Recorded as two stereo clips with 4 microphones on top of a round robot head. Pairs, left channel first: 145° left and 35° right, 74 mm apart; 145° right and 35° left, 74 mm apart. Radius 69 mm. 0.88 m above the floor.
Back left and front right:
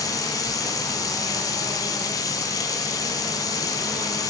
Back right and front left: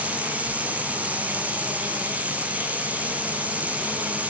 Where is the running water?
105° left, 1.6 m.